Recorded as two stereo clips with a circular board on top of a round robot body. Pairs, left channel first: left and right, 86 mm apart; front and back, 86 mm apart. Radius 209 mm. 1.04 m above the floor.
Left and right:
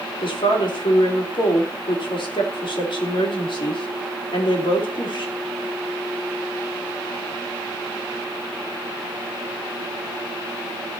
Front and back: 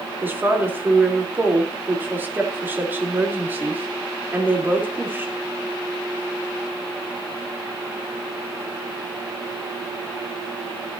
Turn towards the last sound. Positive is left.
turn(degrees=110)